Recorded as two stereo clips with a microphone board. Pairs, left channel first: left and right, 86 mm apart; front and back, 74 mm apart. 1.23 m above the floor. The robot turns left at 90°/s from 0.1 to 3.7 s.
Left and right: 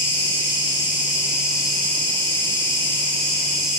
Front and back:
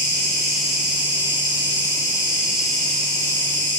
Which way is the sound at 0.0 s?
45° right.